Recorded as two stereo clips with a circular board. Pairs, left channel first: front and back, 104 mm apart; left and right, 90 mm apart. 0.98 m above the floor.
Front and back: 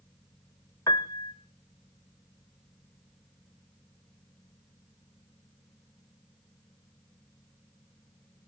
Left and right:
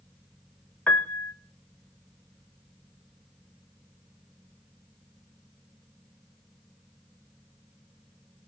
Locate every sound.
0.9 s a piano: 25° left, 0.7 m